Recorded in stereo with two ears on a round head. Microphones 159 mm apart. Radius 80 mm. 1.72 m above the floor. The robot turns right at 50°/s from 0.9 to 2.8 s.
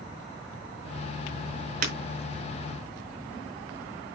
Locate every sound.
1.8 s breaking glass: 50° right (ahead or behind), 4 m; by 1.9 s 55° right (ahead or behind), 4 m